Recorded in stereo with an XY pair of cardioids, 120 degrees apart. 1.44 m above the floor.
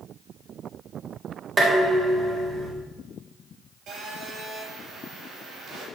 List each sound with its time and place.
1.6 s dishes clattering: 25° right, 4 m
3.9 s a phone buzzing: 55° right, 5 m